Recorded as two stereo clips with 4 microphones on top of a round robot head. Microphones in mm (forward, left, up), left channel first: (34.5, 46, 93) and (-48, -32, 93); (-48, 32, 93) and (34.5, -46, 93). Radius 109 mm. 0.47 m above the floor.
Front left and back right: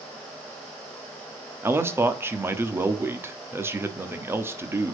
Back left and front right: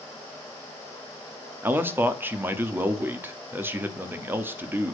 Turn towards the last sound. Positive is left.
turn(degrees=-95)